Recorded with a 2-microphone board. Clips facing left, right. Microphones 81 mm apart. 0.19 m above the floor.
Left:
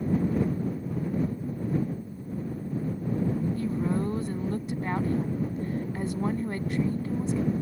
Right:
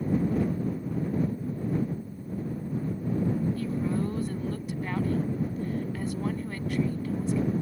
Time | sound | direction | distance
3.6 | a woman speaking | 25° left (ahead or behind) | ?